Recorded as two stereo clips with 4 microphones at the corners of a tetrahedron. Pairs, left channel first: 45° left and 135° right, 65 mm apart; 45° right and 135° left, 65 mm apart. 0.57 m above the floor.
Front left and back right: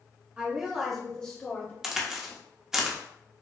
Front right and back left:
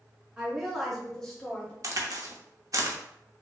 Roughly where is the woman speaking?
Behind.